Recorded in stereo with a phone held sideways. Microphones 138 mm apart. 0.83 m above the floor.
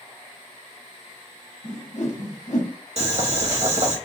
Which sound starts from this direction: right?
Boiling, at 3.0 s.